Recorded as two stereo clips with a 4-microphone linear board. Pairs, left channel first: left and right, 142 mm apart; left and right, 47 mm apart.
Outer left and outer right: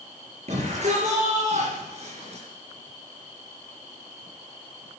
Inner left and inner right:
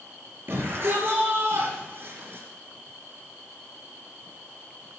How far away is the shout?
About 5.5 m.